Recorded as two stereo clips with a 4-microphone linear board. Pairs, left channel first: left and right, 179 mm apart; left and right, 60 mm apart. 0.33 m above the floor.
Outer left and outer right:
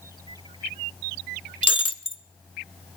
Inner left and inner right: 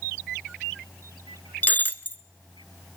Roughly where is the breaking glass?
Left.